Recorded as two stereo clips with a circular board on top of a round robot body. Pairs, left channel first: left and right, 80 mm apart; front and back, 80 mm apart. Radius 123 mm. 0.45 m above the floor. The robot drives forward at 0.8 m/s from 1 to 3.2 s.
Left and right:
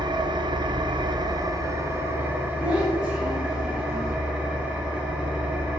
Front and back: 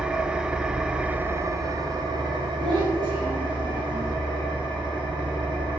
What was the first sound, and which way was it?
An engine running, 100° right.